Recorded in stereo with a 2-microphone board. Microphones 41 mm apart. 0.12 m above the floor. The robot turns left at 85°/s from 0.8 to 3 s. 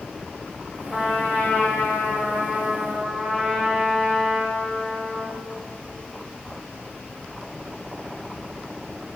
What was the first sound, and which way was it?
A trumpet, 170° right.